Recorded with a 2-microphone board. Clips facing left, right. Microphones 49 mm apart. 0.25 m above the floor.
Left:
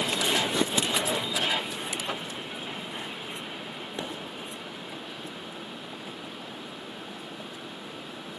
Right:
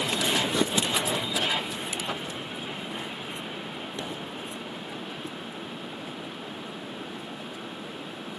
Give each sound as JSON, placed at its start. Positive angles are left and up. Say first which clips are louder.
{"t": 4.0, "sound": "a pop", "louder": "left 2 dB", "side_deg": 25, "distance_m": 0.8}